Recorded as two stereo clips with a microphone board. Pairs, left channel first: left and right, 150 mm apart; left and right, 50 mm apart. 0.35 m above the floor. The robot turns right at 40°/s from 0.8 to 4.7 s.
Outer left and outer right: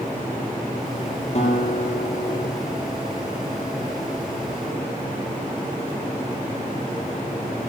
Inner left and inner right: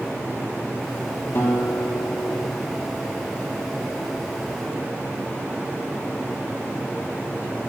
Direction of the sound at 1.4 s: 45° left.